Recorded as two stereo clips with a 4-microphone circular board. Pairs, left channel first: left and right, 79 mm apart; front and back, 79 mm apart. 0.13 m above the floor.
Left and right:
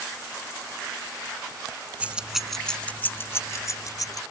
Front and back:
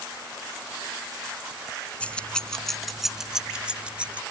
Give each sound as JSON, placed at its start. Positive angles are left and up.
{"t": 2.0, "sound": "keys jangling", "azimuth_deg": -50}